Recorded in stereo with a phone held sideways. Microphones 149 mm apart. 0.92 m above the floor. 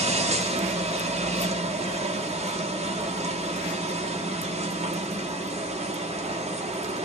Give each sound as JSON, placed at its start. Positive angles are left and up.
{"t": 0.0, "sound": "a machine running", "side_deg": -45, "distance_m": 1.1}